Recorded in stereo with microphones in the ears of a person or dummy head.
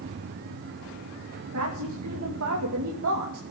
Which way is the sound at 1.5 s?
75° right (ahead or behind).